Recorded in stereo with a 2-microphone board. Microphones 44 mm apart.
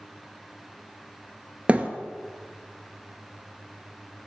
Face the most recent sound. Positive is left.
turn(degrees=-30)  # may be behind; listen again after turning